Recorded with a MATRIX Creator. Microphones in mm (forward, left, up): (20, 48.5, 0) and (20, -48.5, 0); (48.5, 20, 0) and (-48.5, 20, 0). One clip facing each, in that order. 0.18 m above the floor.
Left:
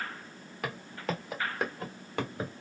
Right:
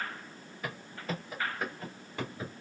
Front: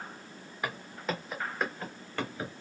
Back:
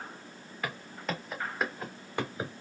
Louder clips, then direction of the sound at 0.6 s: Left 3 dB, front 1 dB; 75° left.